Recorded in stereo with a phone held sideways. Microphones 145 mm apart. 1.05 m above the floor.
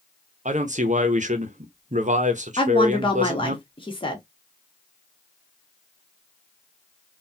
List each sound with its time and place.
0.5 s a man speaking: 55° right (ahead or behind), 0.8 m
2.6 s a woman speaking: 35° left (ahead or behind), 1.3 m